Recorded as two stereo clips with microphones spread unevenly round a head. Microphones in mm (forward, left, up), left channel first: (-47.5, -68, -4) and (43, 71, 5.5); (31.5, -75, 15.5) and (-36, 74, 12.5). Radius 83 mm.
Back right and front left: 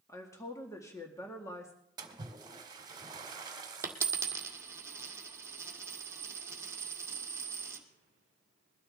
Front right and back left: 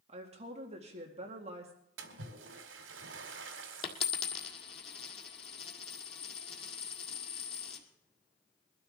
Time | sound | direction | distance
0.1 | a woman speaking | 165° left | 2 m
2.0 | a splash | 120° left | 1.8 m
3.8 | a dropped coin | 15° right | 1.7 m